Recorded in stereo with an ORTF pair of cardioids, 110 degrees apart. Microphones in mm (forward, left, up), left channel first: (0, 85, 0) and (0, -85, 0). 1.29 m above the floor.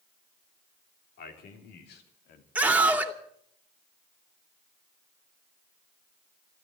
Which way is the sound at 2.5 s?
10° right.